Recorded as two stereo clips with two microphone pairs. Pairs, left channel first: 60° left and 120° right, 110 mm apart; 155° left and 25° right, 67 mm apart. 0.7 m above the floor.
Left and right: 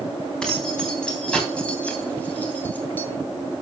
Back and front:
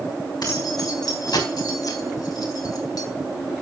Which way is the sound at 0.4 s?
145° left.